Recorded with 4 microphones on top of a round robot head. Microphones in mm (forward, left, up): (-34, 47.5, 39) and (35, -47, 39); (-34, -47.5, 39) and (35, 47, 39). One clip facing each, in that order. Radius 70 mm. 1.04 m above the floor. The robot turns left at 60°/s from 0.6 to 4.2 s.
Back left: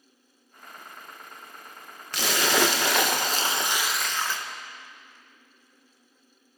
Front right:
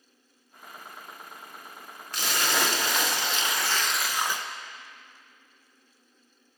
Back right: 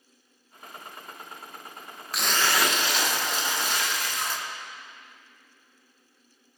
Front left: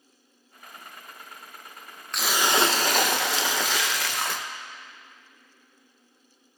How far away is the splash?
About 0.6 m.